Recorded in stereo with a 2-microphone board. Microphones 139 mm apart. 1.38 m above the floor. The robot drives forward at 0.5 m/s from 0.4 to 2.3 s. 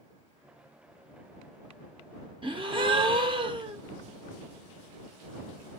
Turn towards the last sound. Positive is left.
turn(degrees=-40)  # may be behind; listen again after turning